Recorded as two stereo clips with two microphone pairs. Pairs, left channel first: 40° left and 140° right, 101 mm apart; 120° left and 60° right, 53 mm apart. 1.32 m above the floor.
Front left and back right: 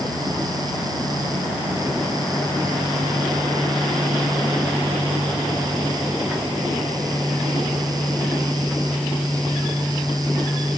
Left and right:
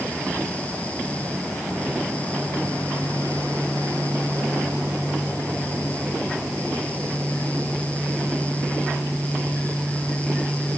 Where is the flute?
I don't hear a flute.